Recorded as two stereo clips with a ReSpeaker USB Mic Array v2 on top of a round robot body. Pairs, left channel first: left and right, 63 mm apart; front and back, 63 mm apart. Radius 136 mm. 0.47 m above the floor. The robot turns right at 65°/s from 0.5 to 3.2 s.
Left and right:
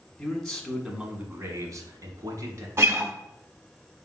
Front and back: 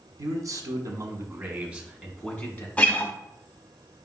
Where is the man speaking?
175° left, 1.4 m; by 2.7 s 45° right, 1.4 m.